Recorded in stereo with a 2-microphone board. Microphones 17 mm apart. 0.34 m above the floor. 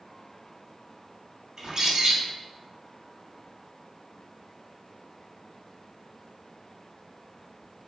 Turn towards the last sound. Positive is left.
turn(degrees=-45)  # may be behind; listen again after turning